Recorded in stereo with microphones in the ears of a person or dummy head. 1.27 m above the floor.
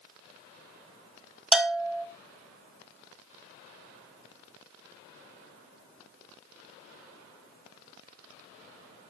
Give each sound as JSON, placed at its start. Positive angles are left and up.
{"t": 1.5, "sound": "a bell", "side_deg": 0, "distance_m": 1.4}